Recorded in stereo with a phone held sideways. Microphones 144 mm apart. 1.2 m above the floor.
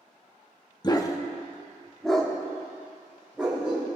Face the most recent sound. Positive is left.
turn(degrees=-10)  # may be behind; listen again after turning